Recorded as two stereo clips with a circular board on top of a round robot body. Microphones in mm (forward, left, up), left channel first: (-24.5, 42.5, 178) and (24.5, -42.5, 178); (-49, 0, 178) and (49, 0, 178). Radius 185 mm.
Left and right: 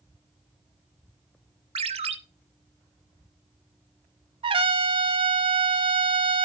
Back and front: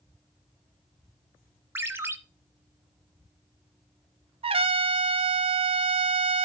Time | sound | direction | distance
1.8 | a ringtone | 70° right | 0.8 m
4.4 | a trumpet | 30° right | 0.7 m